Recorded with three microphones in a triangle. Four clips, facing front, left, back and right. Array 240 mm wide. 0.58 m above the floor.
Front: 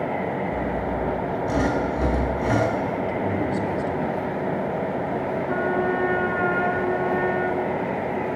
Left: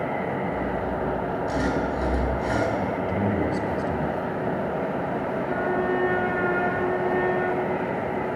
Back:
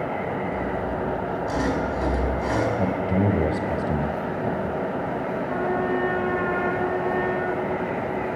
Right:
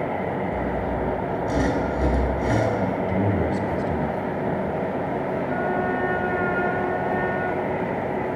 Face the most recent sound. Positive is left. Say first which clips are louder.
# left 1 dB, front 1 dB
turn(degrees=40)